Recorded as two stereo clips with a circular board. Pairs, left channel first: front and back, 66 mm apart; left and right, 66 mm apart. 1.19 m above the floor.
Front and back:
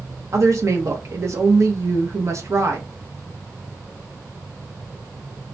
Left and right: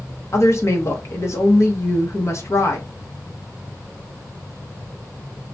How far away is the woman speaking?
About 0.9 m.